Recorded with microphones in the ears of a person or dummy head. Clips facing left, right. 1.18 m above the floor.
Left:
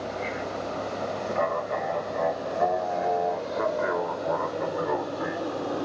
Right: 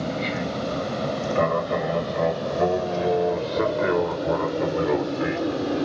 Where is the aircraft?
50° right (ahead or behind); by 5.8 s 30° right (ahead or behind).